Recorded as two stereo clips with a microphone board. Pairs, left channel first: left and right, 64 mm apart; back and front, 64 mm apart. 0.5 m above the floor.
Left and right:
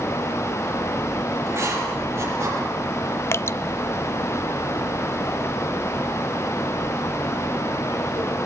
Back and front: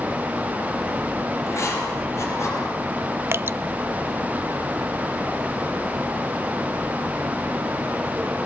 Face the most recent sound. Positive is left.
turn(degrees=45)